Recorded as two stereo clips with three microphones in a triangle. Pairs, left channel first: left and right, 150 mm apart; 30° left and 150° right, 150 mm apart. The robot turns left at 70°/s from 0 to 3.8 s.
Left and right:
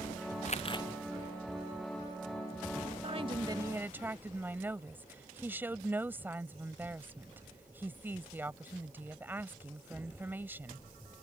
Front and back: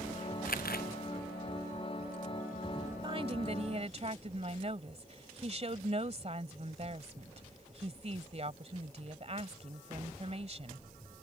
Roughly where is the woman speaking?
Right.